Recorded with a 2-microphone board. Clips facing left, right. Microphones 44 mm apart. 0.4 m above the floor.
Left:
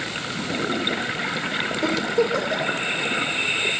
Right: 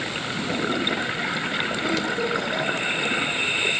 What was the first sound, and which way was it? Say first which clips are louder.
A giggle: left 6 dB; 90° left.